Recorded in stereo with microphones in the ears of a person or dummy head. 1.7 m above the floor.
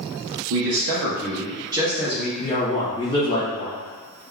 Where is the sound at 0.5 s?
70° right (ahead or behind), 0.7 m; by 2.3 s centre (ahead or behind), 0.8 m.